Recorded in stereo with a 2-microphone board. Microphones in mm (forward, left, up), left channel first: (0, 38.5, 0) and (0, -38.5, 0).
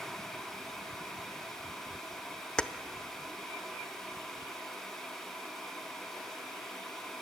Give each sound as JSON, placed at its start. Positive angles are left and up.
{"t": 2.6, "sound": "keys jangling", "side_deg": 10, "distance_m": 0.8}